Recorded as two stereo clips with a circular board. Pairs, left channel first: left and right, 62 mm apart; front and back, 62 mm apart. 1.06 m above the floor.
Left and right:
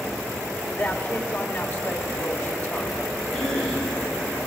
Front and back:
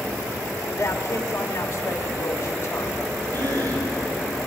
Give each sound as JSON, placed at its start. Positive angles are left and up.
{"t": 0.7, "sound": "a man speaking", "azimuth_deg": 50, "distance_m": 3.0}
{"t": 3.3, "sound": "a cough", "azimuth_deg": 175, "distance_m": 10.0}